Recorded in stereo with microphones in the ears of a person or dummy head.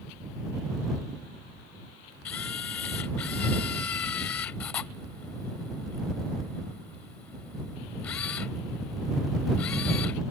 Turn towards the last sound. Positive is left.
turn(degrees=10)  # may be behind; listen again after turning